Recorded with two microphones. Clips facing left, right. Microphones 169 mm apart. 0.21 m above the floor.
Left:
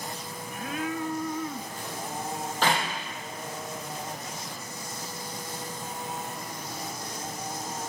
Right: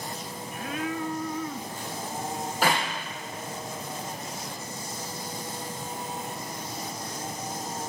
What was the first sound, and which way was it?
A clap, 10° right (ahead or behind).